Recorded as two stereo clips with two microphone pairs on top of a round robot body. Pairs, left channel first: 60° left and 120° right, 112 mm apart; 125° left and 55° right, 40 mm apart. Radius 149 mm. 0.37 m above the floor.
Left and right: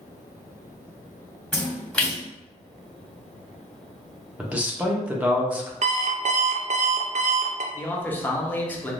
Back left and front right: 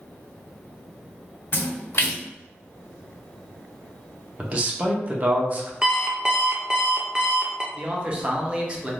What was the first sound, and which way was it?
A splash, 145° left.